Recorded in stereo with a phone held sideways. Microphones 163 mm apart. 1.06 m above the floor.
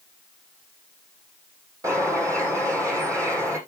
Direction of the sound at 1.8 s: 20° right (ahead or behind).